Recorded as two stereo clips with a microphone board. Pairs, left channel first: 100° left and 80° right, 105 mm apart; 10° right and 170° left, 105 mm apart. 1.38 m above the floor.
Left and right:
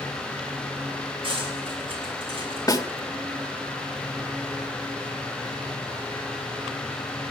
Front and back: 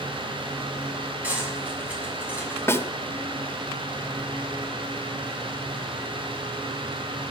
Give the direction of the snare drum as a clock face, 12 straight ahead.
10 o'clock.